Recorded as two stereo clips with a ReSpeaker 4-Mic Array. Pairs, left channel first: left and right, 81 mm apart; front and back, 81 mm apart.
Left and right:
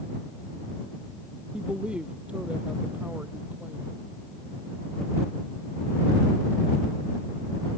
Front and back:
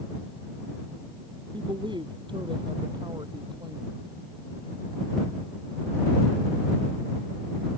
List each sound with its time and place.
1.5 s a woman speaking: 170° right; by 3.9 s 160° right